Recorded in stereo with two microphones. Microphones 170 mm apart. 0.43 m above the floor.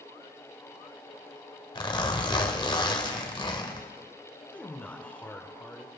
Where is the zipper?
25° left (ahead or behind), 1.7 m.